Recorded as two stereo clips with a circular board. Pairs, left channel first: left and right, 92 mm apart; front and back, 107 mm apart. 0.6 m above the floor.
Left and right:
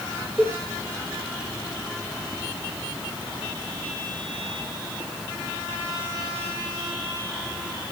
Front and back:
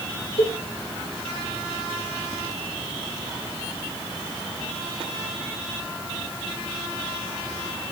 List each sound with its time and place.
0.4 s a cowbell: 10° right, 4 m